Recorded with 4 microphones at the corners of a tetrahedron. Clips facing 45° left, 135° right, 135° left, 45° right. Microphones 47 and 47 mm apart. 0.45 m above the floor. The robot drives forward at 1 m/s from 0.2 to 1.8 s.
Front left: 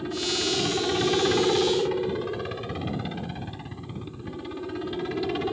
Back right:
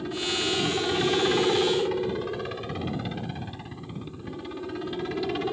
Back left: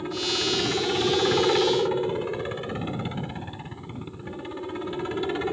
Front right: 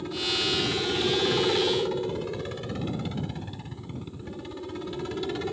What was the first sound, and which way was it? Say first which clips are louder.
A helicopter: even, back left 1 dB; 125° left.